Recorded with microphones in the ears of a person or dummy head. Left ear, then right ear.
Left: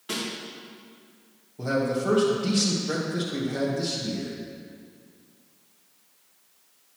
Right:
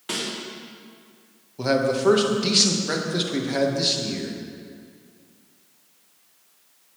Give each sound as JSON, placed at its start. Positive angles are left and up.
{"t": 0.1, "sound": "a snare drum", "side_deg": -25, "distance_m": 2.0}
{"t": 1.6, "sound": "a man speaking", "side_deg": -35, "distance_m": 1.2}